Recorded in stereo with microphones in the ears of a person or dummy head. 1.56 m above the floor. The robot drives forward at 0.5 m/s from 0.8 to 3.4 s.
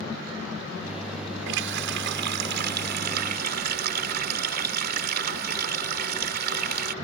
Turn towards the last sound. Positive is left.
turn(degrees=-55)  # may be behind; listen again after turning